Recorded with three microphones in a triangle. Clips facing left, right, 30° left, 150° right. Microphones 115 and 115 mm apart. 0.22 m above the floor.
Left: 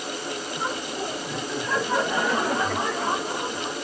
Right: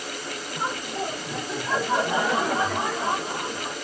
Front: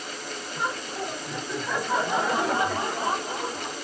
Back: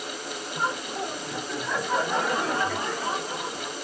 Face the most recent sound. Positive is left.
turn(degrees=10)